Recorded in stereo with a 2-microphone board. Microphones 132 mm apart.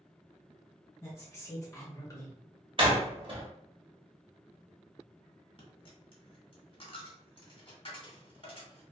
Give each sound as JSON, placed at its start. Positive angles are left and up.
{"t": 1.0, "sound": "a woman speaking", "side_deg": 25, "distance_m": 1.6}
{"t": 2.8, "sound": "a door slam", "side_deg": -45, "distance_m": 0.7}
{"t": 5.6, "sound": "a dropped coin", "side_deg": 45, "distance_m": 1.0}